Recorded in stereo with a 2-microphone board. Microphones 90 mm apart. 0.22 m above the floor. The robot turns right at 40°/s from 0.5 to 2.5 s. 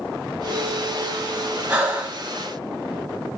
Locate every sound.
1.7 s breathing: 15° right (ahead or behind), 1.5 m; by 2.2 s 20° right (ahead or behind), 1.5 m